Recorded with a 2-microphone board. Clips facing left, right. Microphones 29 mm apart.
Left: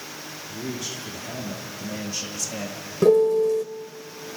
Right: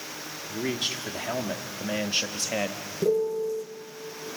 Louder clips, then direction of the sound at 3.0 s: Left 8 dB; 75° left (ahead or behind).